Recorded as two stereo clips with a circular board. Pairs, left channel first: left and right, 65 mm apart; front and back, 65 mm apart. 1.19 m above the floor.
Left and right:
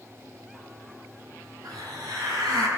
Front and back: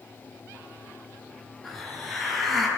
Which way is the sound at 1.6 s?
90° right.